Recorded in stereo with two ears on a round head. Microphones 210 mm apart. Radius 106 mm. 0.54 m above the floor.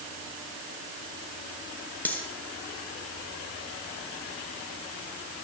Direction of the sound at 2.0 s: 10° left (ahead or behind).